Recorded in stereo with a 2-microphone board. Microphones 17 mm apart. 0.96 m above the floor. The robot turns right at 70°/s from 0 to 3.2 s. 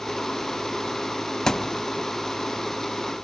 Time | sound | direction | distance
1.5 | a thud | 30° left (ahead or behind) | 0.5 m